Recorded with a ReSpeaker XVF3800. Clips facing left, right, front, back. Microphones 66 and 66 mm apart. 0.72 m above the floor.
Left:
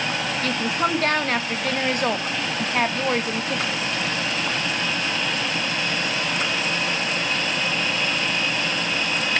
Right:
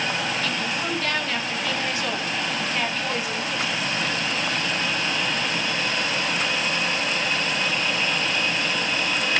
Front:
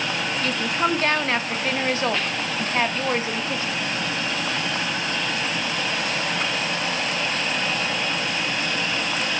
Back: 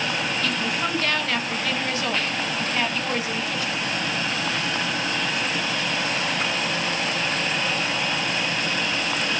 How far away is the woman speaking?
About 1.2 m.